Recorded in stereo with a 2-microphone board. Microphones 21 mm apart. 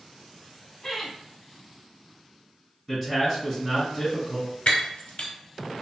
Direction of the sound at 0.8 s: 25° left (ahead or behind).